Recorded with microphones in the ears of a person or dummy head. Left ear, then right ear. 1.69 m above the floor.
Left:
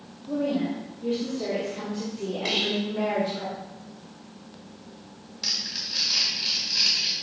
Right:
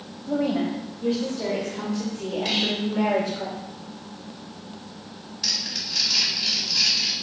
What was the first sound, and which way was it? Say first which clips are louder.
A woman speaking: right 2 dB; 40° right (ahead or behind).